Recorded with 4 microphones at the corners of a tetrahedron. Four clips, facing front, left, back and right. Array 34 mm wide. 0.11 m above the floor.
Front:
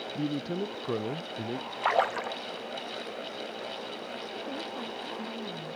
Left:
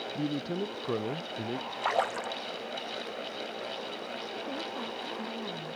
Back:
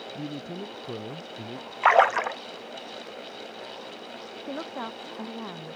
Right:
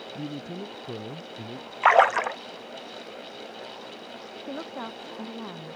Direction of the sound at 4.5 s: 155° right.